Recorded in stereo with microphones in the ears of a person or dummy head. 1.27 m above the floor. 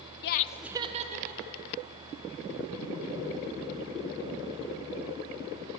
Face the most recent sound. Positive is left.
turn(degrees=-60)  # may be behind; listen again after turning